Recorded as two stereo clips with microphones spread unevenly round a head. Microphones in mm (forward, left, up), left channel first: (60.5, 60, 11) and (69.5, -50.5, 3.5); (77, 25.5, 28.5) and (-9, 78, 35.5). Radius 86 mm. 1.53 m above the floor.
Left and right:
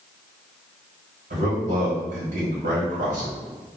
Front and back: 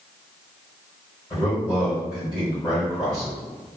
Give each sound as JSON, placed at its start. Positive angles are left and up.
{"t": 1.3, "sound": "a man speaking", "azimuth_deg": -120, "distance_m": 1.3}